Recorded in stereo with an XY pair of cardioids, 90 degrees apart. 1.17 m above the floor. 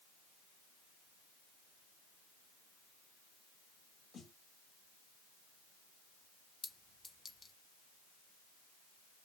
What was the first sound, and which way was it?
A snare drum, 65° left.